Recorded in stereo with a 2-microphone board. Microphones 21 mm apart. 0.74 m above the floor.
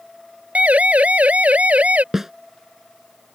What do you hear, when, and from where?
0.6 s a siren: 75° right (ahead or behind)
2.1 s a snare drum: 20° right (ahead or behind)